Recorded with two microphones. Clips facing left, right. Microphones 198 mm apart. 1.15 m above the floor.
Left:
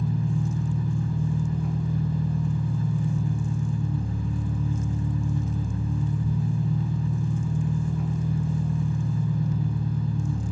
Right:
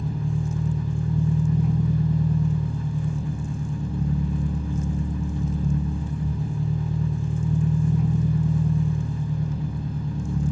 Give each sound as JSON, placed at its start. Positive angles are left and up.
{"t": 0.0, "sound": "an engine running", "side_deg": -75, "distance_m": 0.9}